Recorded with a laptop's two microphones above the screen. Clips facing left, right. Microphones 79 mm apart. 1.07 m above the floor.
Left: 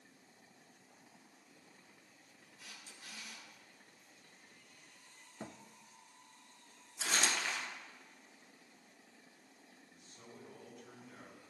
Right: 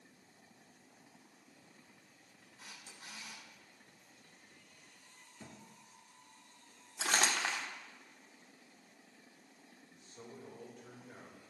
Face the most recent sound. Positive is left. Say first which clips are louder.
# right 5 dB
turn(degrees=-50)  # may be behind; listen again after turning